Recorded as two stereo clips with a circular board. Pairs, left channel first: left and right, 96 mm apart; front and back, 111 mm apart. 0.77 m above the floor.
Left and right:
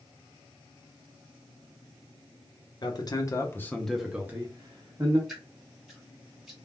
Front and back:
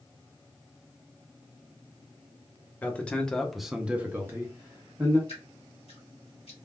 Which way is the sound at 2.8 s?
70° left.